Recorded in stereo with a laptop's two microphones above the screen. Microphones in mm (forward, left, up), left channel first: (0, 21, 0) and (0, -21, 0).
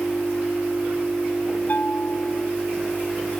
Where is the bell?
40° left (ahead or behind).